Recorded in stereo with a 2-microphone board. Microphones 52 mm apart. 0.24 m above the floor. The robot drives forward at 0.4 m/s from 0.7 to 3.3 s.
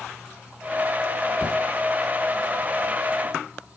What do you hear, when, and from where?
Only background noise.